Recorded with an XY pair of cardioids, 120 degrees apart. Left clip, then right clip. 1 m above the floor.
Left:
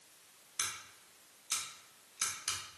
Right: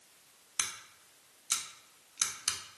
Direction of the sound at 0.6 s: 40° right.